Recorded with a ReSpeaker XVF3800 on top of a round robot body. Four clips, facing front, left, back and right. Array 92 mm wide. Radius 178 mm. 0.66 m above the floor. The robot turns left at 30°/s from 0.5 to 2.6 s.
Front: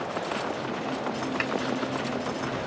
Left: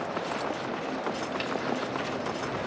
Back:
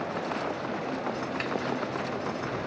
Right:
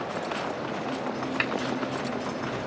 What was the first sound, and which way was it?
A snare drum, 60° right.